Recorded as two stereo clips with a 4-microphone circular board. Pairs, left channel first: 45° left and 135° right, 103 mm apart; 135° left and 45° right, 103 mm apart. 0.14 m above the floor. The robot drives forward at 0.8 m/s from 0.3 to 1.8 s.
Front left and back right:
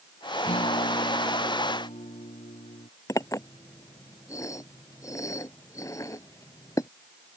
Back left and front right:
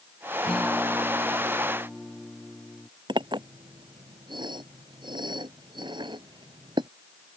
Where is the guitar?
50° left; by 2.9 s 55° left.